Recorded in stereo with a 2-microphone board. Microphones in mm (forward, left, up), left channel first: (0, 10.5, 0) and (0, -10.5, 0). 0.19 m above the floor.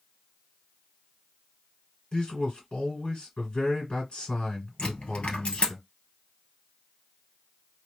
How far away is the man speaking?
About 1.7 m.